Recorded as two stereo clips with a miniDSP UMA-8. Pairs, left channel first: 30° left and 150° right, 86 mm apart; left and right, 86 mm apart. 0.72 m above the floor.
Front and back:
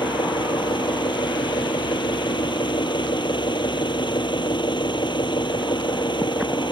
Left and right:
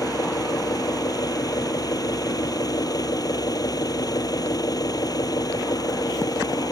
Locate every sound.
0.0 s an engine running: 50° left